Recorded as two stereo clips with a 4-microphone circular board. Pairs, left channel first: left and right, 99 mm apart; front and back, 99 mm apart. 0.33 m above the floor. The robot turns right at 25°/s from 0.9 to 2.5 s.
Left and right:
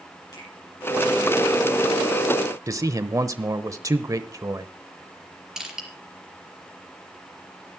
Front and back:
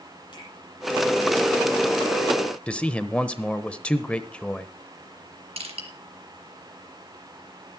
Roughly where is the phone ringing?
No phone ringing in this recording.